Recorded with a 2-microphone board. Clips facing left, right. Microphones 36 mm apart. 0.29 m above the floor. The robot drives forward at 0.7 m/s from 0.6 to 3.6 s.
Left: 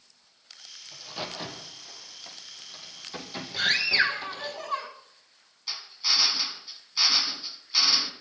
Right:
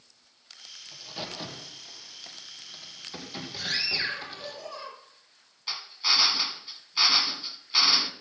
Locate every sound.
0.9 s a crack: 5° left (ahead or behind), 4.5 m
3.6 s a scream: 60° left (ahead or behind), 9 m
5.7 s a drill: 25° right (ahead or behind), 1.6 m